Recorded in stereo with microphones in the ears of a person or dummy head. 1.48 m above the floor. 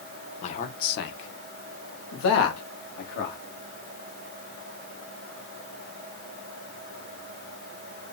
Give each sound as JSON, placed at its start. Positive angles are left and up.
{"t": 0.4, "sound": "a man speaking", "side_deg": 45, "distance_m": 1.0}